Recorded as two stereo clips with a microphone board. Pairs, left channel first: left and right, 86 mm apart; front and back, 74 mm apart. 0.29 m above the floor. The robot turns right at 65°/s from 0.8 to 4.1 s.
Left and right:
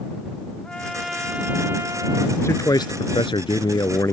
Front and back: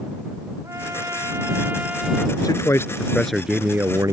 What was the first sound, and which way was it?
A trumpet, 165° left.